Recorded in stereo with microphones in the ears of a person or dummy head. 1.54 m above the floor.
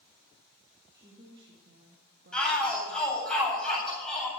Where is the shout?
10° left (ahead or behind), 8.5 m.